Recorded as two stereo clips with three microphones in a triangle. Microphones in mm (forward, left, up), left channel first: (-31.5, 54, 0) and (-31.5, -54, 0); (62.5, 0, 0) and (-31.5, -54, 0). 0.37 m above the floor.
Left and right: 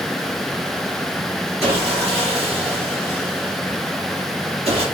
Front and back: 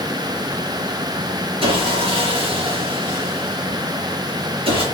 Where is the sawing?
115° right, 4 m.